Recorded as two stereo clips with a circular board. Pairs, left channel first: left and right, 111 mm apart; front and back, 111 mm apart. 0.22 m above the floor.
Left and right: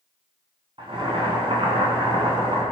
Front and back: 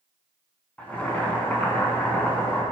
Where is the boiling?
75° right, 2.5 m.